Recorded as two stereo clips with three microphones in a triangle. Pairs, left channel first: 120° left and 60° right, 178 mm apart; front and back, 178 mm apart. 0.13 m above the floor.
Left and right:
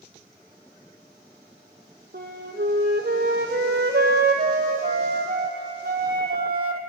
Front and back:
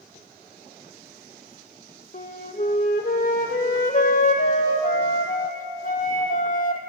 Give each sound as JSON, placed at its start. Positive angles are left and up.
{"t": 2.1, "sound": "a flute", "azimuth_deg": -35, "distance_m": 1.0}